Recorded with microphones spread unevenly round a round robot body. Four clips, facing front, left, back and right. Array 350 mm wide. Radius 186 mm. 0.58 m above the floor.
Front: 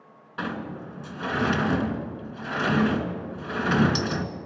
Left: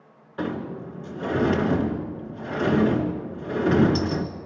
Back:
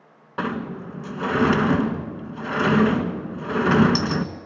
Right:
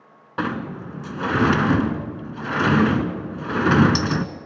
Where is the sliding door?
115° right, 1.8 m.